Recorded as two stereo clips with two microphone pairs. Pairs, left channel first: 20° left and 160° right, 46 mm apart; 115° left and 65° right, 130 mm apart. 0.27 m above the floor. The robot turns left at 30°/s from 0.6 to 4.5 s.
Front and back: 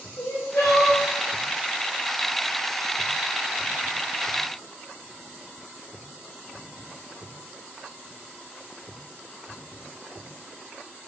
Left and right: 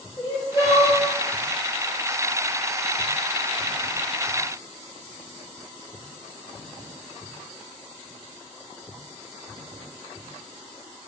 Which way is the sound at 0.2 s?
55° left.